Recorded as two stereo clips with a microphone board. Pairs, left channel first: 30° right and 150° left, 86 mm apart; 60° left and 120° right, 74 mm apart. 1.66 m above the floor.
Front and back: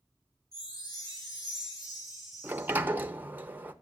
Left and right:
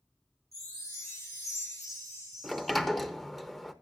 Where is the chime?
15° left, 5 m.